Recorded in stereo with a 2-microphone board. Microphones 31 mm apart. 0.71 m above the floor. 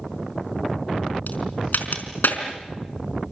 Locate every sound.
1.3 s a crack: 70° left (ahead or behind), 4.5 m